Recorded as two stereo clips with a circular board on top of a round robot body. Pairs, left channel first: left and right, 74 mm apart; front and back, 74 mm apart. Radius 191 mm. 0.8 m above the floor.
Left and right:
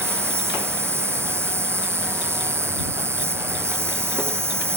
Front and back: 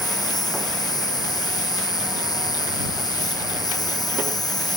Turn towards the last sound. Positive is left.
turn(degrees=-35)